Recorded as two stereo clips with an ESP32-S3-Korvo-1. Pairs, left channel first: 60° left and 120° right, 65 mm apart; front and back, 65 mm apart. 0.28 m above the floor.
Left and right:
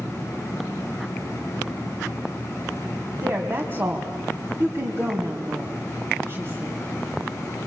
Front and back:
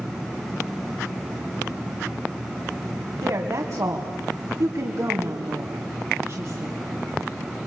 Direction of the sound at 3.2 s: 165° right.